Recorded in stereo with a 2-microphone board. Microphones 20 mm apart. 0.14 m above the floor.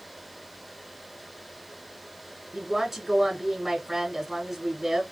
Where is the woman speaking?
15° right (ahead or behind), 1.6 m.